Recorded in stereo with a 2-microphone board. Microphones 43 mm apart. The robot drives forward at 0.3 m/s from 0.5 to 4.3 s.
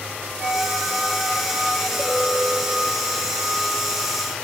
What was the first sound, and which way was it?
A flute, 25° right (ahead or behind).